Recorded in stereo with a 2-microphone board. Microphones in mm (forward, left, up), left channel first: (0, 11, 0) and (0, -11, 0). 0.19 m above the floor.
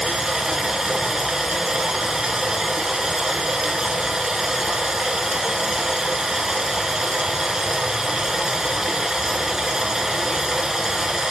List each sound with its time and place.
0.0 s running water: 20° right (ahead or behind), 1.5 m